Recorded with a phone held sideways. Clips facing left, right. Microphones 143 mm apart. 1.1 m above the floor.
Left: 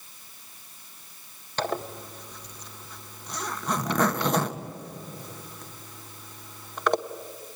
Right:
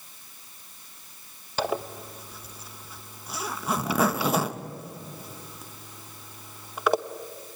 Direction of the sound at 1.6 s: 5° right (ahead or behind).